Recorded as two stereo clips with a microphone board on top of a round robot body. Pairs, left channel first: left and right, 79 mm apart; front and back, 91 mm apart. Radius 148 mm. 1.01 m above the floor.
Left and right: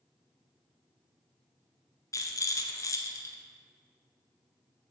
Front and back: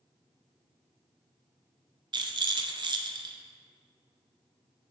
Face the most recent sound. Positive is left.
turn(degrees=140)